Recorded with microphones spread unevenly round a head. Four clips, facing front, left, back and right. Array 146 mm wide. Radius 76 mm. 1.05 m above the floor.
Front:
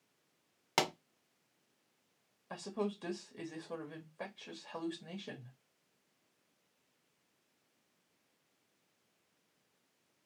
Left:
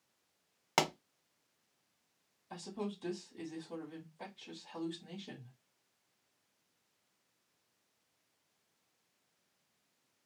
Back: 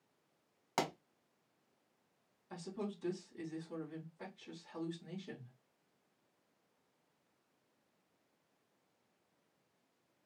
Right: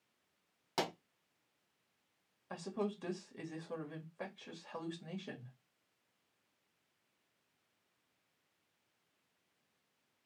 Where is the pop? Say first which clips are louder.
Left 5 dB, front 3 dB; 55° left, 1.2 m.